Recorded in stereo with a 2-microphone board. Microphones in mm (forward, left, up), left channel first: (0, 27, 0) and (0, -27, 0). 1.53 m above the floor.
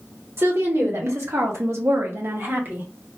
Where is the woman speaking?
55° right (ahead or behind), 1.3 m; by 2.9 s 35° right (ahead or behind), 1.0 m.